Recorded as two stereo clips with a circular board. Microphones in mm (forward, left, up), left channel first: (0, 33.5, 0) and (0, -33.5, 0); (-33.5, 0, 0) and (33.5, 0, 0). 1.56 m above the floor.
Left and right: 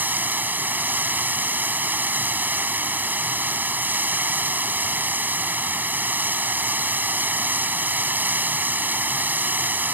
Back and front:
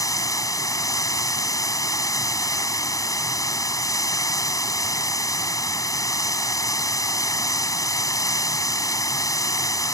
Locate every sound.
0.0 s running water: 150° right